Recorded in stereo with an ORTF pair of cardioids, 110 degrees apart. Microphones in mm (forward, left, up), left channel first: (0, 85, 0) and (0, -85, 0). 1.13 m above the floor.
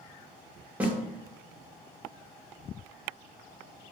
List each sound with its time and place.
0.8 s a snare drum: 10° right, 1.0 m